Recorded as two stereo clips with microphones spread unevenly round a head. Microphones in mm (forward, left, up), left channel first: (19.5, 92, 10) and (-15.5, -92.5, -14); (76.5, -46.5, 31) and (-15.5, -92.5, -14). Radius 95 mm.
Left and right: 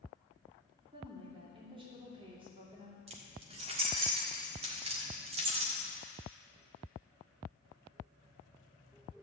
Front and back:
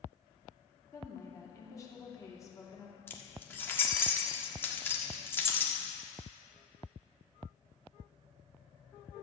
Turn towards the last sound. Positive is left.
turn(degrees=-40)